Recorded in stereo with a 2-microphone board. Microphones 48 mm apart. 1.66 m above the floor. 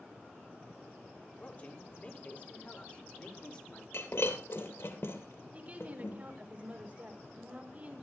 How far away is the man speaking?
About 4.5 m.